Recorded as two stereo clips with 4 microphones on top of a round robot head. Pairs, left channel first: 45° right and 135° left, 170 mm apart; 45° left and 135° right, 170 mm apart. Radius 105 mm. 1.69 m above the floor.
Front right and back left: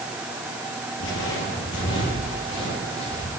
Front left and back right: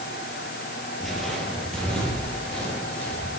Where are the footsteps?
40° right, 2.5 m; by 3.3 s 35° right, 5 m.